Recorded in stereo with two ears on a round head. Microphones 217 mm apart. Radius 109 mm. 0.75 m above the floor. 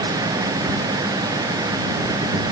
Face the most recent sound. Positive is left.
No sound to turn to.